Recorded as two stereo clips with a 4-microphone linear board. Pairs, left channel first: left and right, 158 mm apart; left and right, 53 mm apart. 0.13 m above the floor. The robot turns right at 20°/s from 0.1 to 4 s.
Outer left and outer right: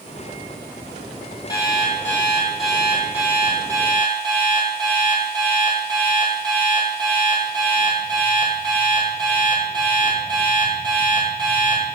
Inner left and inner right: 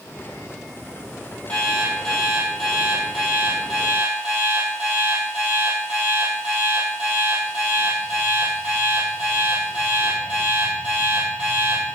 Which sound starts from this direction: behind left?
An alarm clock, at 1.5 s.